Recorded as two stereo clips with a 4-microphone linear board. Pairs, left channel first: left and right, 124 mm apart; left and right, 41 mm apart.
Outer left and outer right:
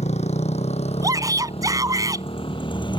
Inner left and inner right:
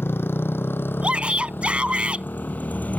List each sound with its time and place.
0.0 s a motorcycle: 65° left (ahead or behind); by 3.0 s 40° left (ahead or behind)
1.0 s a shout: 30° right (ahead or behind)